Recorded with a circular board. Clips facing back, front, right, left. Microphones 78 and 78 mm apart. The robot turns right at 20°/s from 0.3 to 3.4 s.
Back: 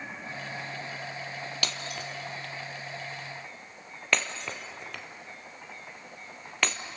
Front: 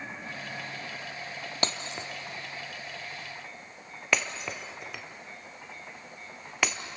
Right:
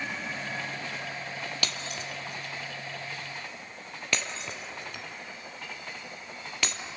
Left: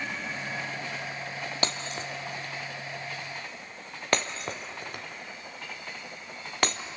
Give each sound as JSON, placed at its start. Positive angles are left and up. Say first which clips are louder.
{"t": 1.6, "sound": "breaking glass", "louder": "front 6 dB, left 3 dB", "azimuth_deg": 45, "distance_m": 1.4}